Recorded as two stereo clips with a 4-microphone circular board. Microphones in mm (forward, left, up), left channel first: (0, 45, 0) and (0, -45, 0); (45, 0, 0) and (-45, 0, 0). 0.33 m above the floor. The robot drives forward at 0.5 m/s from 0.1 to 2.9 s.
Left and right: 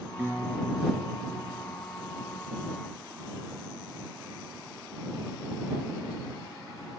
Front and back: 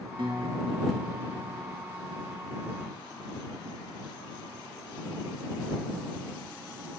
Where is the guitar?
160° right, 3 m.